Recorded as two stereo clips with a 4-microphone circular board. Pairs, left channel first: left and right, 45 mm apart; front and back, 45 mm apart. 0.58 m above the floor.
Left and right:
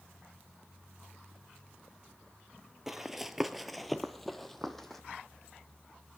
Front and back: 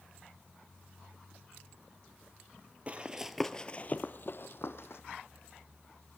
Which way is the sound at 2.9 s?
165° right.